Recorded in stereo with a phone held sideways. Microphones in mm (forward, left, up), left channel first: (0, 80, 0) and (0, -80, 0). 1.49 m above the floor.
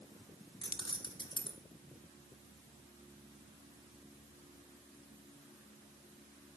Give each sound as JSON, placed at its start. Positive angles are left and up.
{"t": 0.6, "sound": "keys jangling", "side_deg": 30, "distance_m": 0.7}